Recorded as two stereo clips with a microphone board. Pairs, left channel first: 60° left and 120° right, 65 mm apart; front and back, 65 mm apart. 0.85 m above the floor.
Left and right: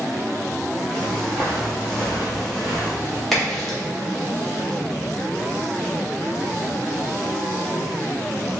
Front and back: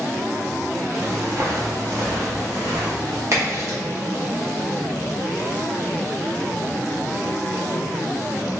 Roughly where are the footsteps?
Behind left.